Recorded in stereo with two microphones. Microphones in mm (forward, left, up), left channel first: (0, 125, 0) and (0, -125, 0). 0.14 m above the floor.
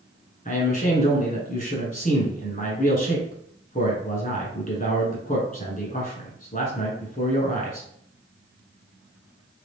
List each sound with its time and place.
0.5 s a man speaking: 35° left (ahead or behind), 1.2 m